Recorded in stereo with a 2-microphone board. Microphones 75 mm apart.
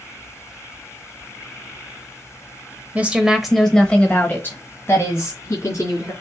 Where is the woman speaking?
20° right (ahead or behind), 0.9 m; by 6.1 s 40° left (ahead or behind), 2 m.